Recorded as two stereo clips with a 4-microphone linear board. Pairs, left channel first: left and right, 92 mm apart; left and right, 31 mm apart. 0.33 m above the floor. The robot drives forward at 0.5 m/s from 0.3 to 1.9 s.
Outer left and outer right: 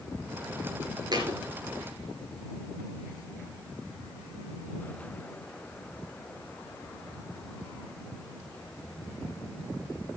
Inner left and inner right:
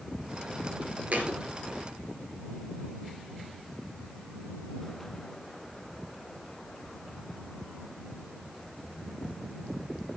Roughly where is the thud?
Right.